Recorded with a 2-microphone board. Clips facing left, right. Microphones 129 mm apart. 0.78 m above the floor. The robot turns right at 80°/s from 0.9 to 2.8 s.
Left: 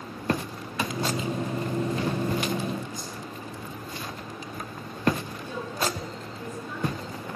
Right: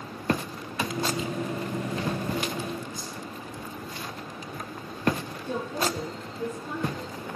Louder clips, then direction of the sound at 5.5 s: Right 2 dB; 45° right (ahead or behind).